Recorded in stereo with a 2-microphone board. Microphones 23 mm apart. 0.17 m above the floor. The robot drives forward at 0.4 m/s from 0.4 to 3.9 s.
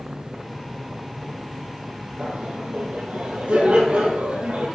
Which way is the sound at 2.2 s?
75° right (ahead or behind).